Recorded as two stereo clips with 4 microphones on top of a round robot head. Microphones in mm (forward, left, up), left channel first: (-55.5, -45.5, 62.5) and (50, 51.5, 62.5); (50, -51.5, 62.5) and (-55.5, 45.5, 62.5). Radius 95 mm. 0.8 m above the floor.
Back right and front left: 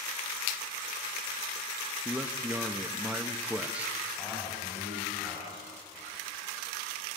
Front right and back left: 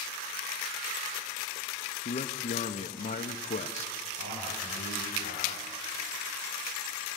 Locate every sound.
2.0 s a man speaking: 35° right, 1.1 m
4.2 s a man speaking: 135° left, 6.5 m